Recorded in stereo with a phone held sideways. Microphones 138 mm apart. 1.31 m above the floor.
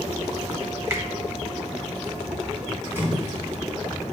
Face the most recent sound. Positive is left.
turn(degrees=-15)  # may be behind; listen again after turning